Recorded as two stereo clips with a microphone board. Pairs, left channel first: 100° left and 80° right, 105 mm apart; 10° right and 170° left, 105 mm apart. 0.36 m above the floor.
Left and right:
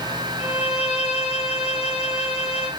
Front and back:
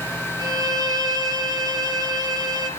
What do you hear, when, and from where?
0.4 s a violin: 120° left, 3 m